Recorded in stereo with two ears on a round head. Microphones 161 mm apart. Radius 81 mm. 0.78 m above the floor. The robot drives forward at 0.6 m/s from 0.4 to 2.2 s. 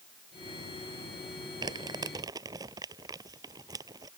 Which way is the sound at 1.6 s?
25° right (ahead or behind).